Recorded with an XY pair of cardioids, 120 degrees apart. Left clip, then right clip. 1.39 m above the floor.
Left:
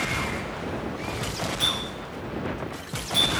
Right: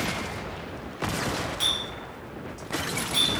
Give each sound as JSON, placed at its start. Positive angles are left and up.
{"t": 1.6, "sound": "a clink", "azimuth_deg": -10, "distance_m": 1.2}